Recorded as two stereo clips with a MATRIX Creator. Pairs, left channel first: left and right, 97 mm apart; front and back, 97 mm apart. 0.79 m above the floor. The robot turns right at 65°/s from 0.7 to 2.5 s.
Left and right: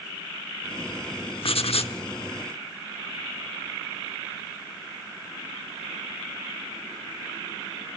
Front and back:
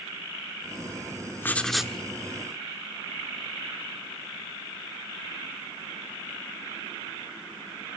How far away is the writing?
About 0.9 m.